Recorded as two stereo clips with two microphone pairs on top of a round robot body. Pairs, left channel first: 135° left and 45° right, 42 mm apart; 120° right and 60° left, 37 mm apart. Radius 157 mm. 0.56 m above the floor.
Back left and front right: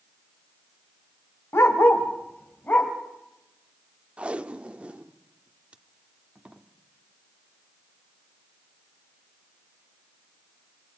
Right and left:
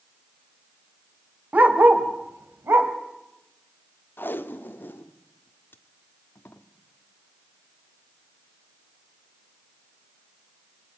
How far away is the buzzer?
No buzzer in this recording.